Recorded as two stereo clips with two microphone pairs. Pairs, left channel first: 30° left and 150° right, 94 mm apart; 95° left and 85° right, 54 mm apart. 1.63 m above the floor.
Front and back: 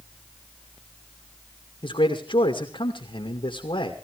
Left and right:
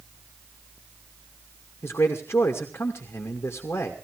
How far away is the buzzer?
No buzzer in this recording.